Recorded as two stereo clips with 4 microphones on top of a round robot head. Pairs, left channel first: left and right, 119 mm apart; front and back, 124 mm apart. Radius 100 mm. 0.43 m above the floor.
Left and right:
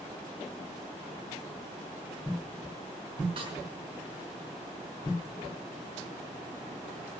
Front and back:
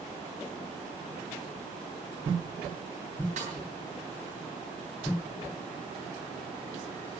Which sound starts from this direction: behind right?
A snare drum, at 3.4 s.